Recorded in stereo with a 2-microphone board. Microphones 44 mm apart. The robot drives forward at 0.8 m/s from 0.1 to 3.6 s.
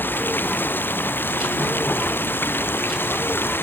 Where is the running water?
45° left (ahead or behind); by 3.6 s 50° left (ahead or behind).